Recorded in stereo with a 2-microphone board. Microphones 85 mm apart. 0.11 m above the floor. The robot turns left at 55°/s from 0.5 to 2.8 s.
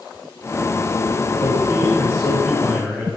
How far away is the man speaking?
About 5.5 m.